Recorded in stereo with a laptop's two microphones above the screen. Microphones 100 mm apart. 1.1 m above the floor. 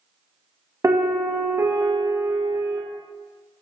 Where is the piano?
30° right (ahead or behind), 0.6 m.